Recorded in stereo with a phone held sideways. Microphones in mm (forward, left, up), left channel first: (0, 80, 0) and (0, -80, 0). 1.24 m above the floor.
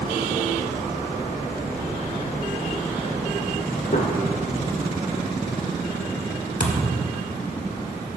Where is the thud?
75° left (ahead or behind), 1.9 m.